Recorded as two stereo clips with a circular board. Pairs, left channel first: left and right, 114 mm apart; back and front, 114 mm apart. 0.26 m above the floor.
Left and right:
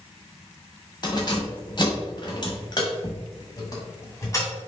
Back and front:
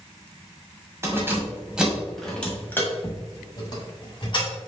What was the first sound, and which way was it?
Keys jangling, 55° left.